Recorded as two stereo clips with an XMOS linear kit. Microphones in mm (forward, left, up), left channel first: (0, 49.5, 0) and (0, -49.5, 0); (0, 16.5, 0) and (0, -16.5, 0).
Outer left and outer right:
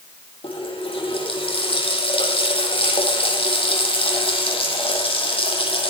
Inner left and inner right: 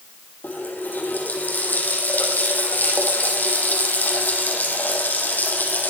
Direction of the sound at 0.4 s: 65° left (ahead or behind).